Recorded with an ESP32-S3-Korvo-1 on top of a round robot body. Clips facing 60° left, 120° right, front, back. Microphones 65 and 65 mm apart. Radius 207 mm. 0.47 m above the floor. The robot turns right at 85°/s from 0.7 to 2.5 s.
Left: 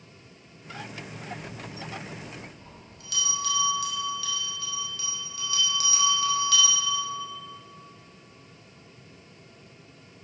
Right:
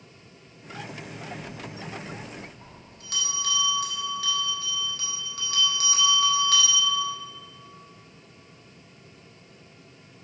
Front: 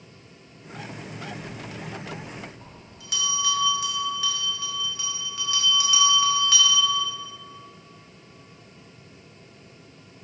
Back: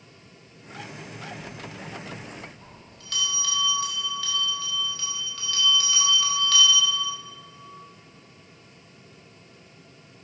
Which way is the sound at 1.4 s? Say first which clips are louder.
Right 1 dB, front 2 dB; 170° right.